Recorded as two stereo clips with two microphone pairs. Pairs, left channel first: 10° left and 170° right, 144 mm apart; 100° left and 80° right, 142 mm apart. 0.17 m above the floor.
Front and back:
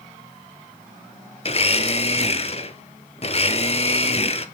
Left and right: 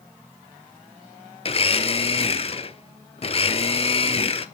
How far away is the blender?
About 0.6 m.